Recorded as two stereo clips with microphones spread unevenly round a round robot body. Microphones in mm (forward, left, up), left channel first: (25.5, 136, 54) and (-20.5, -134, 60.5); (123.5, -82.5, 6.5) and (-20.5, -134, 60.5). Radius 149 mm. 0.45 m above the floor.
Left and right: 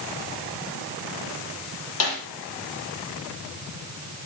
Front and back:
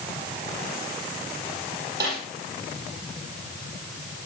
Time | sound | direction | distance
2.0 | a snare drum | 120° left | 6.5 m